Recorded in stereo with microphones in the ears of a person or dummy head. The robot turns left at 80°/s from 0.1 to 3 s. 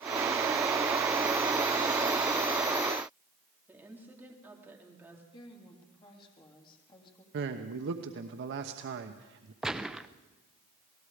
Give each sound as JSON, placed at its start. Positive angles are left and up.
{"t": 3.7, "sound": "a woman speaking", "side_deg": -10, "distance_m": 3.5}
{"t": 5.3, "sound": "a woman speaking", "side_deg": 25, "distance_m": 3.5}
{"t": 7.3, "sound": "a man speaking", "side_deg": -65, "distance_m": 1.1}
{"t": 9.6, "sound": "a gunshot", "side_deg": -5, "distance_m": 0.6}